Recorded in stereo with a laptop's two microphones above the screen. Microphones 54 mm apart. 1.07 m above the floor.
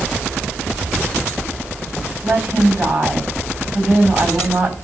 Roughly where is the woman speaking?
Right.